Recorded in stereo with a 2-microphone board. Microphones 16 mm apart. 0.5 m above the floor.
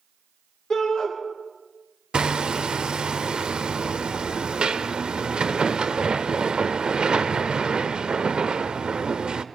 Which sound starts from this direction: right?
Hammering, at 2.1 s.